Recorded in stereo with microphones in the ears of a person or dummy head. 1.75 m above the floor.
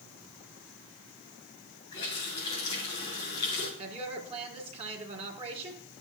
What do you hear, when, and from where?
1.9 s a running tap: 25° left (ahead or behind), 4.5 m
3.8 s a woman speaking: 35° right (ahead or behind), 2 m